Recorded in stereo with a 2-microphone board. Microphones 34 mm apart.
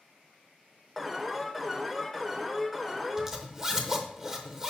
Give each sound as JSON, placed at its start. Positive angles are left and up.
{"t": 1.0, "sound": "an alarm", "side_deg": -5, "distance_m": 0.7}
{"t": 3.2, "sound": "a zipper", "side_deg": -15, "distance_m": 0.8}